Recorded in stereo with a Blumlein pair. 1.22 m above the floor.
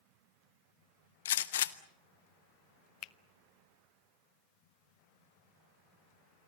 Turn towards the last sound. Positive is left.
turn(degrees=35)